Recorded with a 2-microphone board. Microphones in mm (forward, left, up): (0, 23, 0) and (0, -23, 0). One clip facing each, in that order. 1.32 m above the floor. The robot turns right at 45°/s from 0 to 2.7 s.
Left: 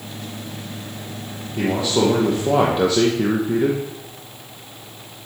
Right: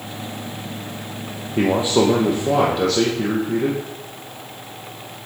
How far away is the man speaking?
About 1.1 m.